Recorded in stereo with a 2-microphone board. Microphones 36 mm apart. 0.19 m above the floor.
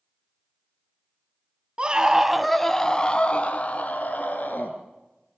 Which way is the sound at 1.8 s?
30° right (ahead or behind).